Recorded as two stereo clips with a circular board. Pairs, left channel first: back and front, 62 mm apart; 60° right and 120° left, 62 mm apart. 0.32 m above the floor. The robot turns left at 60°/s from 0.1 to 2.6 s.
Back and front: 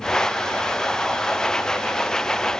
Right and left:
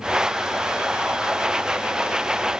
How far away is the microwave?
No microwave in this recording.